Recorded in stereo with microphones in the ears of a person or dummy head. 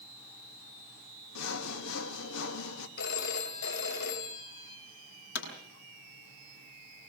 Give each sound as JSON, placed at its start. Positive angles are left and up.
{"t": 1.4, "sound": "sawing", "side_deg": 80, "distance_m": 2.5}
{"t": 3.0, "sound": "a phone ringing", "side_deg": 65, "distance_m": 3.5}
{"t": 5.3, "sound": "a pop", "side_deg": 75, "distance_m": 8.0}